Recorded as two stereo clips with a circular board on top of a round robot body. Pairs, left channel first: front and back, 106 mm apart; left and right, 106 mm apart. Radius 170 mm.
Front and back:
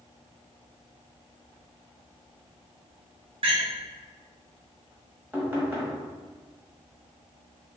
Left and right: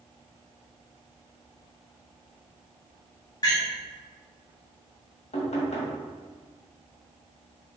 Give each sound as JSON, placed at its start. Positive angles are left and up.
{"t": 3.4, "sound": "a door slam", "azimuth_deg": 145, "distance_m": 1.4}
{"t": 5.3, "sound": "knocking", "azimuth_deg": 105, "distance_m": 1.4}